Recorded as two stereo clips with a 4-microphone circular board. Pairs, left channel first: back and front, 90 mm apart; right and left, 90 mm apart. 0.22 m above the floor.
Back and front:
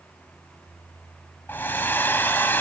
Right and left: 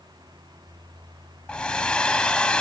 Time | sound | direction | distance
1.5 | a hair dryer | 155° right | 1.4 m